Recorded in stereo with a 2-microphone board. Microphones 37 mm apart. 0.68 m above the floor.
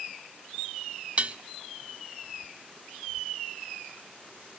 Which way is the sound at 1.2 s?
35° right (ahead or behind).